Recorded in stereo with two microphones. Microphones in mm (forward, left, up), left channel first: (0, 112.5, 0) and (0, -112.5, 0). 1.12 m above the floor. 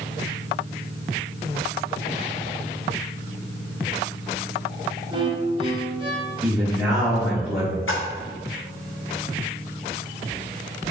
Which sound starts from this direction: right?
A violin, at 5.1 s.